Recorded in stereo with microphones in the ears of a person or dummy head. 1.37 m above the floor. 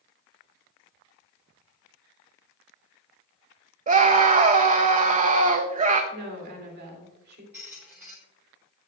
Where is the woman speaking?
55° right (ahead or behind), 2.5 m.